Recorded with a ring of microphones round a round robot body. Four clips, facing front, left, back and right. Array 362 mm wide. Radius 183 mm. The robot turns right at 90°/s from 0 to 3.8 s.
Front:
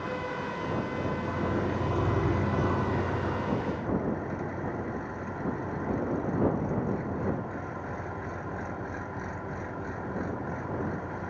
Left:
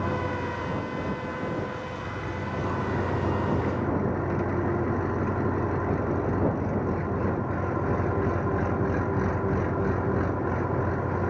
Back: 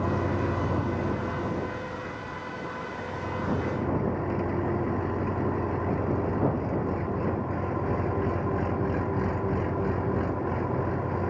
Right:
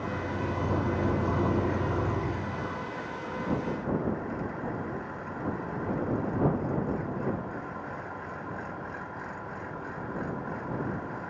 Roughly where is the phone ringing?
I don't hear a phone ringing.